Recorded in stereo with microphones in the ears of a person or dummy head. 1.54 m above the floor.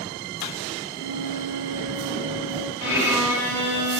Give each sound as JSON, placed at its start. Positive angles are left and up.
{"t": 1.0, "sound": "a flute", "side_deg": 60, "distance_m": 2.0}
{"t": 2.8, "sound": "a violin", "side_deg": 75, "distance_m": 2.5}